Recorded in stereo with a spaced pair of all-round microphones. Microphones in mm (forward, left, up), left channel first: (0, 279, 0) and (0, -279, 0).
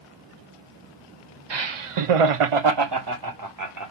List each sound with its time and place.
1.5 s laughter: 50° right (ahead or behind), 0.7 m; by 3.9 s 30° right (ahead or behind), 1.5 m